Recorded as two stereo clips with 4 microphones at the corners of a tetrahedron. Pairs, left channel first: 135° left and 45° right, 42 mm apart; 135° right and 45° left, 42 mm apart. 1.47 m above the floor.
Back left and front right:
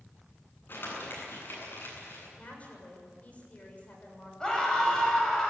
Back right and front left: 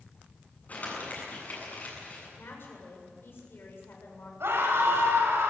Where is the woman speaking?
165° right, 7 m.